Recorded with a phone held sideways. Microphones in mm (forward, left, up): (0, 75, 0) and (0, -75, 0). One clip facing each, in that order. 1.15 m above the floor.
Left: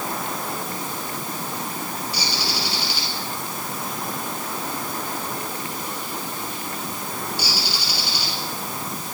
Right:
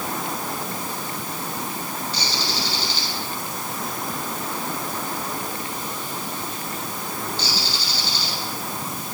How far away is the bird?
About 6.5 m.